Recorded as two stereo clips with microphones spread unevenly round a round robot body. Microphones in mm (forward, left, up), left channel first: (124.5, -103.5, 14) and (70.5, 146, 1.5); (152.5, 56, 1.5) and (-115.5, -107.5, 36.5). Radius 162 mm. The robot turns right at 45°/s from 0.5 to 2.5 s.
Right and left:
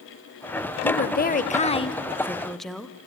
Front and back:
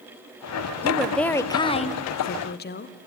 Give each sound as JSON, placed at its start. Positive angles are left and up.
{"t": 0.8, "sound": "a woman speaking", "azimuth_deg": -60, "distance_m": 1.1}